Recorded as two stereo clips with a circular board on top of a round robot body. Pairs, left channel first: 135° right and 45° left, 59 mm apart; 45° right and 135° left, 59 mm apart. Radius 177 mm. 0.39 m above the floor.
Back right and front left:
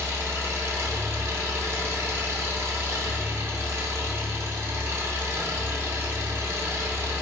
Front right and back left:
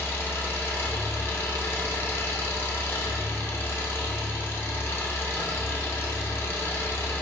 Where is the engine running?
Straight ahead, 0.7 m.